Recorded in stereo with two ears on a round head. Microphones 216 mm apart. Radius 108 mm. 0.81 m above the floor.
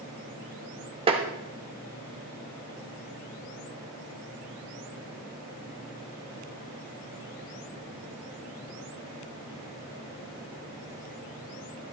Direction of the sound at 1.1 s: 25° right (ahead or behind).